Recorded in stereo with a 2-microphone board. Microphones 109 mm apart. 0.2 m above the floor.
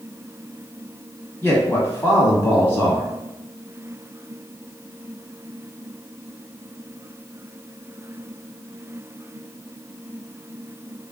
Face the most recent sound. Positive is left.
turn(degrees=20)  # may be behind; listen again after turning